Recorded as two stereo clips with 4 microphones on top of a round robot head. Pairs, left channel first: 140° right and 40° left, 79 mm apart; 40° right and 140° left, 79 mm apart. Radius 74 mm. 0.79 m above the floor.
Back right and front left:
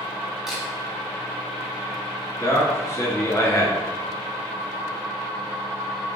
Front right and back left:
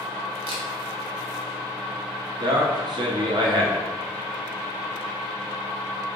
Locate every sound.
0.5 s a camera shutter: 125° left, 0.7 m
2.4 s a man speaking: 165° left, 1.1 m